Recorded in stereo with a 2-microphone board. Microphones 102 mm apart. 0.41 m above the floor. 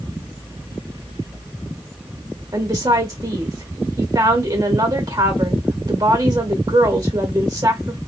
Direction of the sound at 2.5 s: 35° right (ahead or behind).